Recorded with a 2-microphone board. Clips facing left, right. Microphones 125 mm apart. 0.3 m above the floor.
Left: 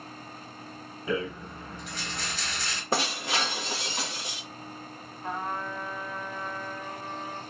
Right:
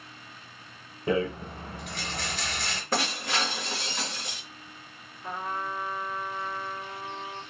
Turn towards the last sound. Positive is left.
turn(degrees=60)  # may be behind; listen again after turning